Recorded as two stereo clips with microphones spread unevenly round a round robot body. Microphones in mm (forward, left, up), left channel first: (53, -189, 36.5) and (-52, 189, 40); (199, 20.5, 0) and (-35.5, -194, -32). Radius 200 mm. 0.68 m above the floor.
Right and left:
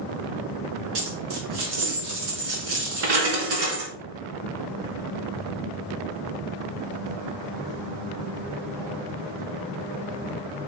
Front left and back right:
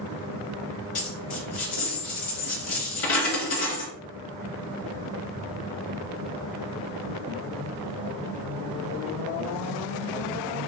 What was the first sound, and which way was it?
A dropped coin, 75° left.